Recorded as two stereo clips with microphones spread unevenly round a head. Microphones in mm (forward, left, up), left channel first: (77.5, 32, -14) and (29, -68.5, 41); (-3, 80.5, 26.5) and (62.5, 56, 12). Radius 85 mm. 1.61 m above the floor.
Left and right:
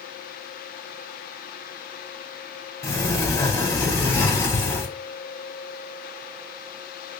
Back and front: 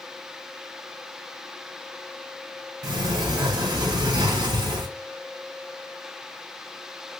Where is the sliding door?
5° right, 0.9 m.